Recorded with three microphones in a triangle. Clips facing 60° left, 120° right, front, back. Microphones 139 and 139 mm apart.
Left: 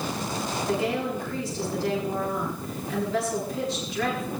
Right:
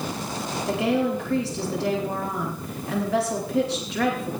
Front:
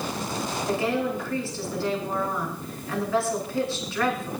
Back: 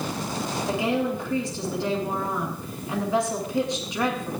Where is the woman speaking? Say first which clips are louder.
Right 5 dB, back 1 dB; 110° right, 9 m.